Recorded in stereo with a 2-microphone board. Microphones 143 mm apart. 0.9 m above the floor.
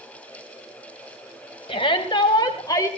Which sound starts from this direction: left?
A shout, at 1.7 s.